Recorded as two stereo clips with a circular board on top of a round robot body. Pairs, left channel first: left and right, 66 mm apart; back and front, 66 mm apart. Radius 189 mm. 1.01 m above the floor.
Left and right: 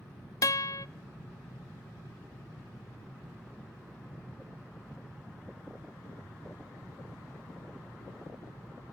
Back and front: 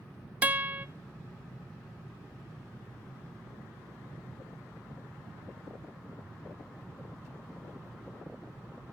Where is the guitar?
65° left, 0.5 m.